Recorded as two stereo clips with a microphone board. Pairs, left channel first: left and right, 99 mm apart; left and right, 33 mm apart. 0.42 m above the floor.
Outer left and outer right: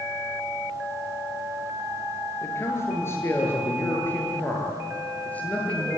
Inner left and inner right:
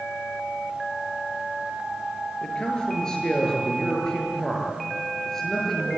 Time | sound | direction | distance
2.4 | a man speaking | 30° left (ahead or behind) | 8.5 m